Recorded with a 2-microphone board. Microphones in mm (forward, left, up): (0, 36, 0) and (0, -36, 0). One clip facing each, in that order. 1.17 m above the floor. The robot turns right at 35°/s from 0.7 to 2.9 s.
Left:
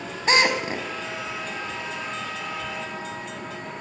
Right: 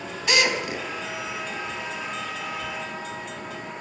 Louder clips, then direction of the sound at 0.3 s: Left 3 dB; 35° left (ahead or behind).